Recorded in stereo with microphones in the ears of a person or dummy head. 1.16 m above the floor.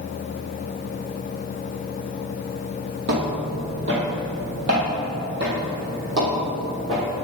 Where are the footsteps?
60° right (ahead or behind), 2 m; by 7.0 s 45° right (ahead or behind), 3 m.